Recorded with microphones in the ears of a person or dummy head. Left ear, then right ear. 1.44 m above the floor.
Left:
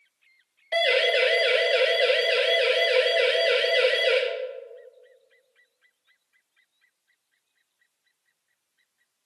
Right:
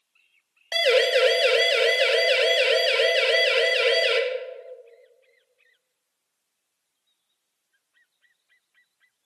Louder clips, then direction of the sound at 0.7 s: Right 2 dB; 85° right.